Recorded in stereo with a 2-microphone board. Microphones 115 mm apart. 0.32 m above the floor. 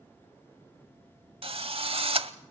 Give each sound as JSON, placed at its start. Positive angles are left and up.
{"t": 1.4, "sound": "a drill", "side_deg": -55, "distance_m": 0.8}